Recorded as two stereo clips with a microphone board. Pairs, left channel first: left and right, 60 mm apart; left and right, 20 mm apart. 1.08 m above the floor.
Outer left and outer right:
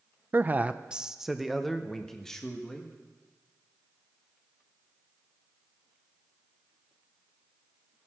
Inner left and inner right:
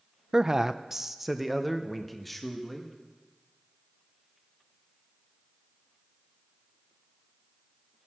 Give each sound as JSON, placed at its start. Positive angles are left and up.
{"t": 0.3, "sound": "a man speaking", "side_deg": -35, "distance_m": 0.5}